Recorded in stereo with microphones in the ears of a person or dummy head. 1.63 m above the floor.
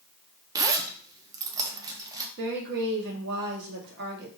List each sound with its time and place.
0.6 s a zipper: 15° right (ahead or behind), 0.5 m
2.4 s a woman speaking: 55° right (ahead or behind), 1.0 m